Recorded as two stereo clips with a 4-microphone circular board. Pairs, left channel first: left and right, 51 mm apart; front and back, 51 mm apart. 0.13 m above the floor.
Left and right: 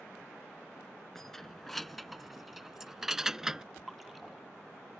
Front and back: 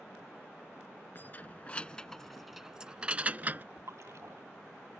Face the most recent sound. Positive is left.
turn(degrees=180)